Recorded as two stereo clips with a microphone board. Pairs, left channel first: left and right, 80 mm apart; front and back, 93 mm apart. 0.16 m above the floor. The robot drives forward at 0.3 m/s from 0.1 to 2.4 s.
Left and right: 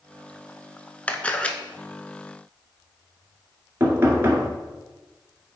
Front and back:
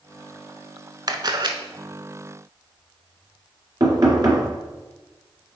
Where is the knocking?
145° right, 2 m.